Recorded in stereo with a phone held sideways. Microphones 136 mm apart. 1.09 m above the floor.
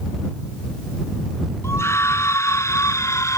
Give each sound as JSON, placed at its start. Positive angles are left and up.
{"t": 1.6, "sound": "a scream", "side_deg": 20}